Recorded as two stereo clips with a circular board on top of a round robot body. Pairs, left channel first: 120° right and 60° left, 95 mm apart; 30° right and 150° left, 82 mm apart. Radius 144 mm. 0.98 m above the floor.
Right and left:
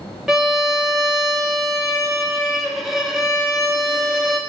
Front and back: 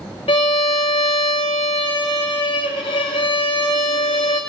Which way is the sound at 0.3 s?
25° right.